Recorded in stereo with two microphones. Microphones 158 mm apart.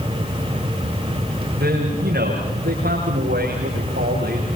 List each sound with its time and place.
1.5 s a man speaking: 80° right, 9 m